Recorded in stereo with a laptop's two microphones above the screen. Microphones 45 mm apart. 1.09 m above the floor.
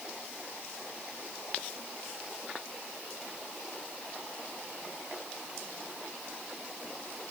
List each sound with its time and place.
Only background noise.